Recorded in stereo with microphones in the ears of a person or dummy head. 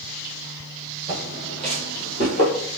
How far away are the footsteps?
About 1.9 m.